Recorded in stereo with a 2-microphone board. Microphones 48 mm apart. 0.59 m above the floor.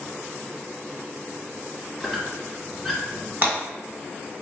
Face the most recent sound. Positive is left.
turn(degrees=-35)  # may be behind; listen again after turning